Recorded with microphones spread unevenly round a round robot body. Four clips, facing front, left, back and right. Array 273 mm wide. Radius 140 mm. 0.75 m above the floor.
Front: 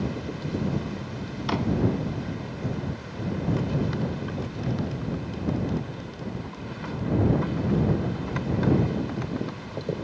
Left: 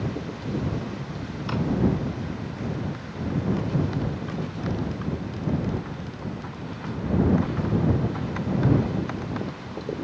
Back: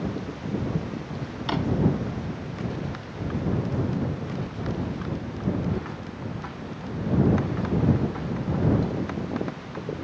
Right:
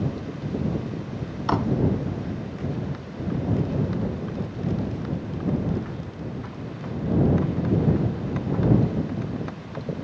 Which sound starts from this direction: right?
A drawer, at 1.5 s.